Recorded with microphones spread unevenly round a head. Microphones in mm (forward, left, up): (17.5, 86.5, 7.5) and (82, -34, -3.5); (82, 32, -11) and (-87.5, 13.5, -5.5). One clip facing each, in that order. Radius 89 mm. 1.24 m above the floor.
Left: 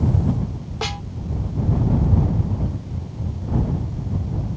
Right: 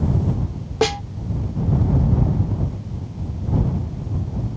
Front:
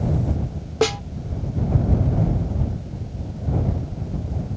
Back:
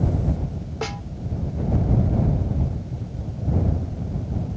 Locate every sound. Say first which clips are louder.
0.8 s a snare drum: right 10 dB, front 11 dB; 30° right